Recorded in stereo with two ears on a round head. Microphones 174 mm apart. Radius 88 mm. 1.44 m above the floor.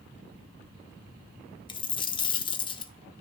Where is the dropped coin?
25° left (ahead or behind), 1.0 m.